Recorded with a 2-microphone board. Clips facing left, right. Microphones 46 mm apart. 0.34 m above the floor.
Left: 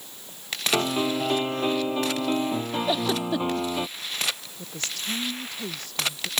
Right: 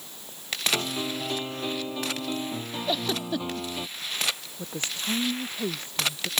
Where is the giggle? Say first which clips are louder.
Left 2 dB; 10° left (ahead or behind).